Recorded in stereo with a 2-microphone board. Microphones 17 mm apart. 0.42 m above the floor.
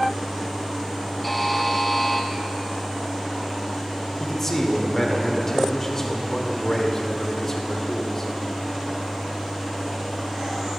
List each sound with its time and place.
1.2 s a buzzer: 5° left (ahead or behind), 0.9 m
4.2 s a man speaking: 25° left (ahead or behind), 1.1 m